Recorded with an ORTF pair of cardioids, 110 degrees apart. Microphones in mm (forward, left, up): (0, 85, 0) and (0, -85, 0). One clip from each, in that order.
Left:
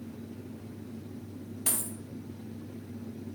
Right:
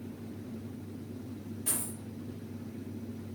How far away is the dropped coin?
About 1.8 m.